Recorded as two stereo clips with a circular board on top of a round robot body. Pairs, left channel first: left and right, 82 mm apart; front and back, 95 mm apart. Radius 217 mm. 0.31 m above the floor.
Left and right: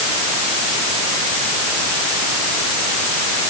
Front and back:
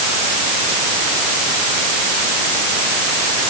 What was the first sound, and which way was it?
Only background noise.